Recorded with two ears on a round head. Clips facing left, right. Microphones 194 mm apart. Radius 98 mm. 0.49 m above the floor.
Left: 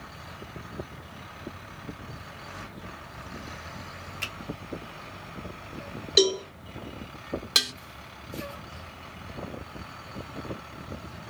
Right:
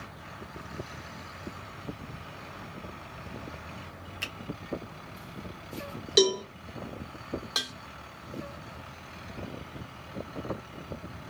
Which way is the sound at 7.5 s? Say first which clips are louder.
Left 4 dB; 30° left (ahead or behind).